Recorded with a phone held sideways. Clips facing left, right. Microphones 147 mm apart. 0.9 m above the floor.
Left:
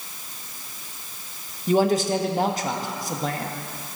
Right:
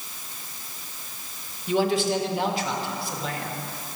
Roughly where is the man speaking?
Left.